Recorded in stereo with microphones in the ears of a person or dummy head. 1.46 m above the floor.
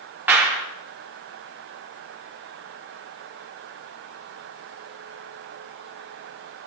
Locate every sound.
0.3 s a clap: 10° right (ahead or behind), 3 m